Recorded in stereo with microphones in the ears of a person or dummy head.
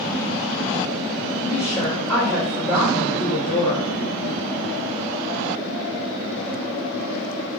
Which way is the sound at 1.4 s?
Centre (ahead or behind).